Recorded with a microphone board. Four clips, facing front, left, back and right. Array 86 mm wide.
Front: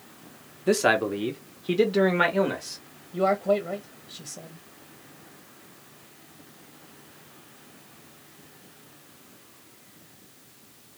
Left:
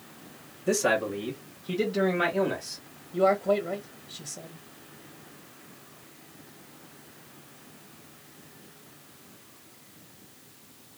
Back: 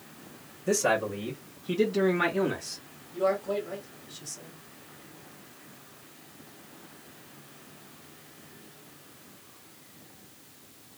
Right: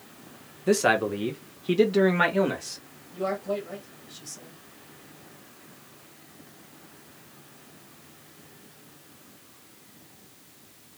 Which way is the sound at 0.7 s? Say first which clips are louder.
Right 3 dB, front 4 dB; 25° right.